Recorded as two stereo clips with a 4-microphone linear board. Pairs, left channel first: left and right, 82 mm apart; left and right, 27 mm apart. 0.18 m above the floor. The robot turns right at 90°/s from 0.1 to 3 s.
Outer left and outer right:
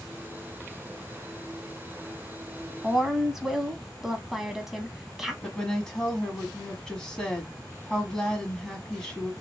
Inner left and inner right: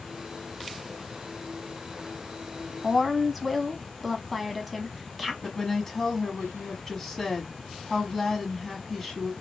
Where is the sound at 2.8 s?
10° right (ahead or behind), 1.0 m; by 5.3 s 5° right (ahead or behind), 1.0 m.